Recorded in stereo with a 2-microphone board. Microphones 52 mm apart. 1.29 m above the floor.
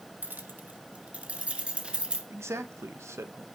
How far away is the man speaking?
About 1.1 m.